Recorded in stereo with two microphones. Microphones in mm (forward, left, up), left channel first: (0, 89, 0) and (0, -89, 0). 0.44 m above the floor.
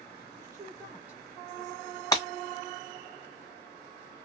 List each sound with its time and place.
0.4 s a woman speaking: 20° right (ahead or behind), 1.4 m; by 2.0 s 5° left (ahead or behind), 1.7 m
2.1 s breaking glass: 20° left (ahead or behind), 1.2 m